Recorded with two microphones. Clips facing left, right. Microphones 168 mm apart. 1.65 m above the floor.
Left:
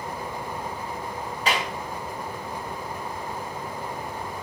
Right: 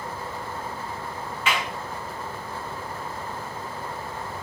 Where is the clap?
35° left (ahead or behind), 1.9 m.